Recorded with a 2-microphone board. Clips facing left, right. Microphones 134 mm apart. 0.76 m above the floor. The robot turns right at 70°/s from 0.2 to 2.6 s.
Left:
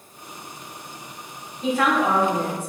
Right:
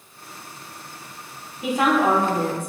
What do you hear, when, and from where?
1.6 s a woman speaking: 170° right, 0.7 m; by 2.7 s 100° right, 0.7 m